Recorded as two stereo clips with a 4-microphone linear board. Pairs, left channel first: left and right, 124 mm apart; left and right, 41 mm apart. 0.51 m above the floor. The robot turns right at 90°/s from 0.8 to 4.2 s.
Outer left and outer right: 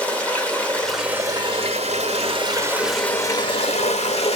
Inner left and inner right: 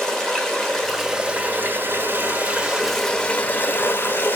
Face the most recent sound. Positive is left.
turn(degrees=115)